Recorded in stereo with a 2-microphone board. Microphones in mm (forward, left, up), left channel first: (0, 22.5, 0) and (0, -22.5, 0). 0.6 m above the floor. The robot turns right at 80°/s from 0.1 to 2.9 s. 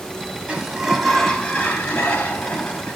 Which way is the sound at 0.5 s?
40° right.